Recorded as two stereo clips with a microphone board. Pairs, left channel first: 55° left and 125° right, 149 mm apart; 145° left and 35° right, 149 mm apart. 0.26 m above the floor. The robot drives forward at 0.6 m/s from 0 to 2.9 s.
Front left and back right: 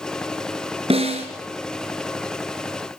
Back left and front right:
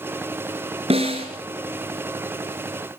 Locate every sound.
0.9 s a snare drum: 80° right, 3.5 m; by 1.3 s 85° right, 3.5 m